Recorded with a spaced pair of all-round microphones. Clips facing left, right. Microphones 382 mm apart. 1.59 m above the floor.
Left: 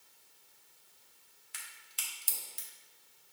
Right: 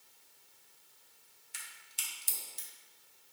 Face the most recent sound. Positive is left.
turn(degrees=70)  # may be behind; listen again after turning